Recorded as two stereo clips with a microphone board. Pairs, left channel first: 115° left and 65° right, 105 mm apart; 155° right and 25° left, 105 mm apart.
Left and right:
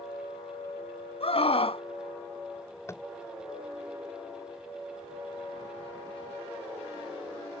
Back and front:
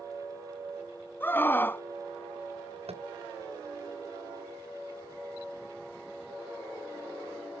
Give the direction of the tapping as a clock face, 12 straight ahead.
10 o'clock.